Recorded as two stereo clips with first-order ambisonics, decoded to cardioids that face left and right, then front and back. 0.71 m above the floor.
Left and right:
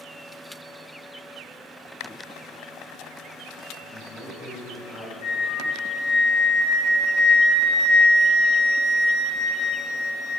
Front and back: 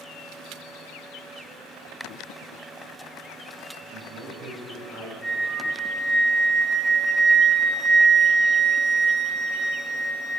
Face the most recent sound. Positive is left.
turn(degrees=75)